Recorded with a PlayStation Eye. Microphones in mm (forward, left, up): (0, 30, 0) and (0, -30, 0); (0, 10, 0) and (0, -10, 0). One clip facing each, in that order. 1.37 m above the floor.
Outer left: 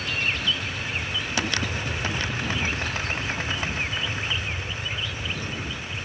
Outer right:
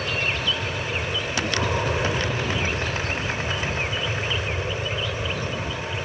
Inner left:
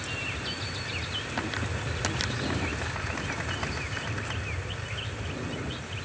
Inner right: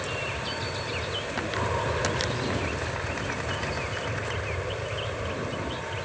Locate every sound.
0.0 s an aircraft: 80° right